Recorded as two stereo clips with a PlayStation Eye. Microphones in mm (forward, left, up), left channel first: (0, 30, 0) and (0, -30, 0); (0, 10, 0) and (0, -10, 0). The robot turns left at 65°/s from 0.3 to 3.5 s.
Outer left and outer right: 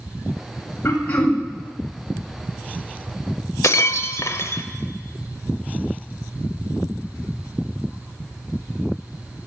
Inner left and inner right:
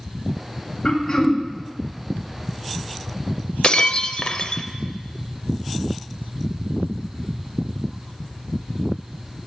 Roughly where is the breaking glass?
Left.